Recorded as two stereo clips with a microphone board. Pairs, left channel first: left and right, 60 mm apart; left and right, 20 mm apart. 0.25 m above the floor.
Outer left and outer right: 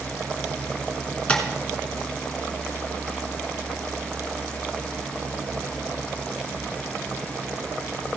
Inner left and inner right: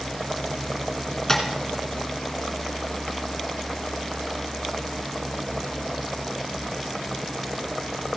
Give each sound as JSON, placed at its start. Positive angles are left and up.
{"t": 1.3, "sound": "tapping", "side_deg": 20, "distance_m": 1.8}